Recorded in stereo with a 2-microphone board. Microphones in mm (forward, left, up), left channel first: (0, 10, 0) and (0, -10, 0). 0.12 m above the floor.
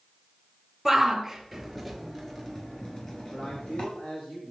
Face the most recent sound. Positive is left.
turn(degrees=75)  # may be behind; listen again after turning